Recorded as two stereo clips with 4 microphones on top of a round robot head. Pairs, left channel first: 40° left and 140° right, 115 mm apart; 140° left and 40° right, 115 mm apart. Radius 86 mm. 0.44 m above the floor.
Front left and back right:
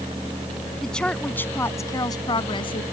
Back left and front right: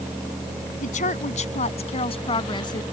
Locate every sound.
0.8 s a woman speaking: 125° left; by 2.8 s 85° left